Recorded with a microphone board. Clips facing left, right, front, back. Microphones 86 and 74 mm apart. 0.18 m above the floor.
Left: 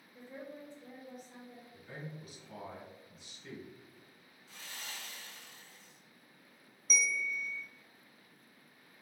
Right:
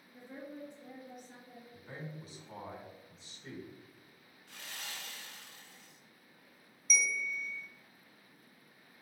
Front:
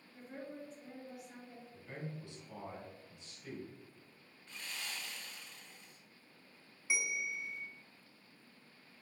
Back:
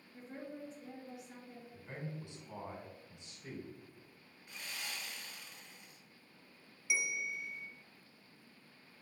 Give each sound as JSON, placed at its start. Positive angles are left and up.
{"t": 0.1, "sound": "a woman speaking", "azimuth_deg": -85, "distance_m": 2.0}
{"t": 1.7, "sound": "a man speaking", "azimuth_deg": -125, "distance_m": 1.7}
{"t": 4.5, "sound": "sawing", "azimuth_deg": -105, "distance_m": 1.2}
{"t": 6.9, "sound": "a bell", "azimuth_deg": 50, "distance_m": 0.7}